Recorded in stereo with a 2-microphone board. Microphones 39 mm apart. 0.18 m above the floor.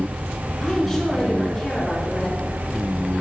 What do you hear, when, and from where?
0.6 s a woman speaking: 5° left (ahead or behind), 2.5 m